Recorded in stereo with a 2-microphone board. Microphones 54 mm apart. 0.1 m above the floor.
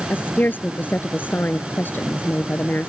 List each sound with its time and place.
0.1 s a woman speaking: 40° left (ahead or behind)